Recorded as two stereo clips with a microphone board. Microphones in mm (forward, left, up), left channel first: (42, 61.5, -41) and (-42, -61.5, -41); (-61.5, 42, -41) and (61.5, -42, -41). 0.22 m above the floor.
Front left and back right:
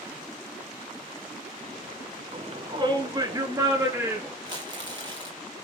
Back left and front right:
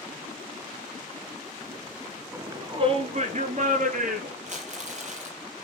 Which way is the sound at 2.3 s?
100° right.